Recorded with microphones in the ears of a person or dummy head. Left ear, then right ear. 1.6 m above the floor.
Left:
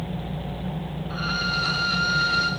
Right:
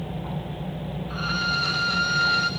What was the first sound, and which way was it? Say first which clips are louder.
A violin: even; 5° right (ahead or behind).